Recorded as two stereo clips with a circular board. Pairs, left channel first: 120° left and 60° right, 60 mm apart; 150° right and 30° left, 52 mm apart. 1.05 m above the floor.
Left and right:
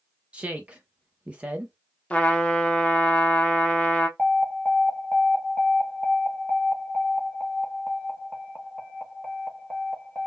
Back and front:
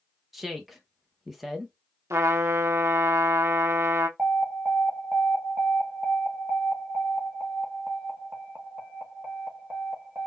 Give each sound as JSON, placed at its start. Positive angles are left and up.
{"t": 0.3, "sound": "a woman speaking", "azimuth_deg": -50, "distance_m": 0.5}
{"t": 2.1, "sound": "a trumpet", "azimuth_deg": 50, "distance_m": 0.7}
{"t": 4.2, "sound": "an alarm", "azimuth_deg": 20, "distance_m": 1.0}